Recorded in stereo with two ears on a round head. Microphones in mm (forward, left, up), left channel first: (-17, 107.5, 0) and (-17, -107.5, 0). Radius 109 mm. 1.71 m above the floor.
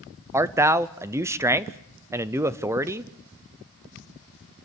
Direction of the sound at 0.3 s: 10° right (ahead or behind).